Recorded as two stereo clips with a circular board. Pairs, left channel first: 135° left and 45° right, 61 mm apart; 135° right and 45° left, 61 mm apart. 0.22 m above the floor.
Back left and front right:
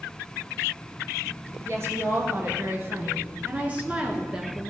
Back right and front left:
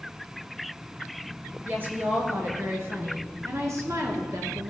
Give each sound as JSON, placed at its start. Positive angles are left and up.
{"t": 1.6, "sound": "a woman speaking", "azimuth_deg": -10, "distance_m": 3.5}